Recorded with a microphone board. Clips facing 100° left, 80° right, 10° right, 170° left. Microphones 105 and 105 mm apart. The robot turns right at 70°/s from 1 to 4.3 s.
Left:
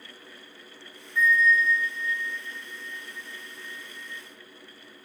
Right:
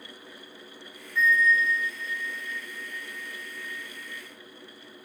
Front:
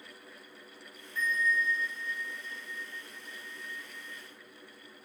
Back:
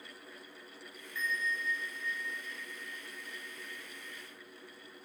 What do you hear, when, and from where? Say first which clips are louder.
1.1 s a bell: left 1 dB, front 6 dB; 30° left, 1.7 m; by 4.2 s 115° right, 1.7 m